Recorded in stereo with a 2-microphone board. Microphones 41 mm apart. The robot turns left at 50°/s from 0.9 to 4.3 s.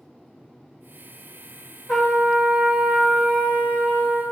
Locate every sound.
1.9 s a trumpet: 10° left, 1.4 m; by 4.2 s 105° right, 1.4 m